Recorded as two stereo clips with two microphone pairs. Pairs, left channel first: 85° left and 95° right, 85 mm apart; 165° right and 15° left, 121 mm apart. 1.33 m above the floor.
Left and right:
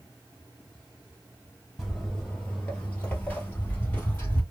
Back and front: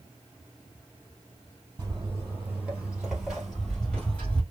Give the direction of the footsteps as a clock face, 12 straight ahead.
12 o'clock.